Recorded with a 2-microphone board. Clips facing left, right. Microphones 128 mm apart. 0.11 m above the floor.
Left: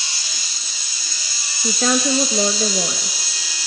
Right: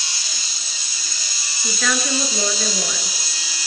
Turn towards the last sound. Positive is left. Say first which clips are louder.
# left 5 dB
turn(degrees=35)  # may be behind; listen again after turning